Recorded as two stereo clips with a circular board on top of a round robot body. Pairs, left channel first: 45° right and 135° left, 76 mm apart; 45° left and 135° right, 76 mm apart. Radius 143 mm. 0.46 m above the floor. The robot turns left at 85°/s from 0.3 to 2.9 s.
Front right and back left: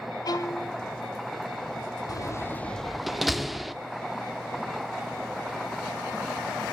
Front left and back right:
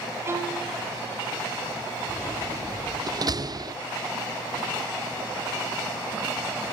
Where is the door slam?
65° right, 1.1 m; by 3.7 s 135° right, 1.1 m.